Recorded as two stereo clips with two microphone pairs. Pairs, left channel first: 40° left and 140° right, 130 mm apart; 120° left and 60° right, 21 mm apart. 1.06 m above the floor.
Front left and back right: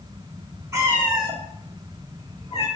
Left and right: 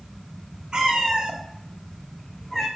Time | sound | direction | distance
0.7 | a cat meowing | 80° right | 0.8 m